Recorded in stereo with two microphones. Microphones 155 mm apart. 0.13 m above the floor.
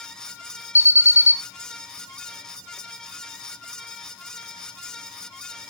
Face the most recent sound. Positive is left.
turn(degrees=-15)  # may be behind; listen again after turning